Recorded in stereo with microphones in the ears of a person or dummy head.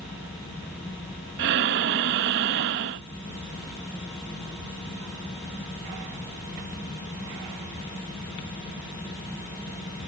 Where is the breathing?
40° right (ahead or behind).